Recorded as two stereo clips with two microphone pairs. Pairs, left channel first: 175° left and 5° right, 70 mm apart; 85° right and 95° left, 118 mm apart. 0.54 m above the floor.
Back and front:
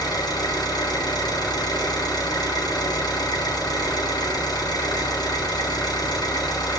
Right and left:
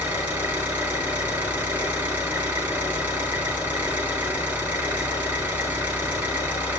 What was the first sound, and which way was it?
An engine running, 170° left.